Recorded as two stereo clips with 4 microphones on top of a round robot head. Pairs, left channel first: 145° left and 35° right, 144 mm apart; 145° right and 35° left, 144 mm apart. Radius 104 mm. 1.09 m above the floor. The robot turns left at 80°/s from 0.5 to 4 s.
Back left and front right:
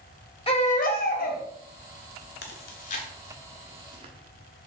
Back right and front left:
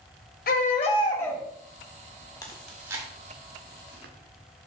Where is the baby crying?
160° right, 1.9 m; by 1.4 s 125° left, 1.9 m.